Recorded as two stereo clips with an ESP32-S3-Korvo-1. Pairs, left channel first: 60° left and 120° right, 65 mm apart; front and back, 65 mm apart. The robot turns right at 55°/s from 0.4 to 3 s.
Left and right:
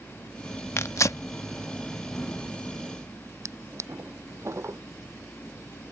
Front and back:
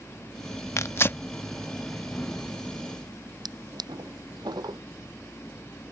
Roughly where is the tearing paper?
Ahead left.